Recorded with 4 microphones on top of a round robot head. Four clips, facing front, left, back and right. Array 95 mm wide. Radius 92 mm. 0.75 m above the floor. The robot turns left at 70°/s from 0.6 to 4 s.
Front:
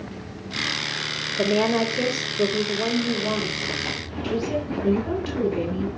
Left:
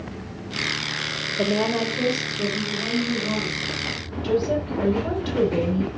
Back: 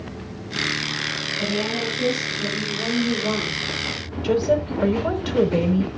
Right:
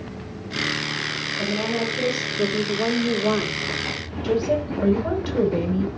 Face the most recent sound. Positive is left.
turn(degrees=-170)